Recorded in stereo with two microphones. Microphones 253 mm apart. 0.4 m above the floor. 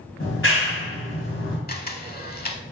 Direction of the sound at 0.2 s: 55° left (ahead or behind).